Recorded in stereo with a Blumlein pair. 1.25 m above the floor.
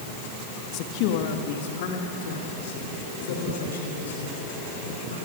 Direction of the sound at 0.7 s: 40° left.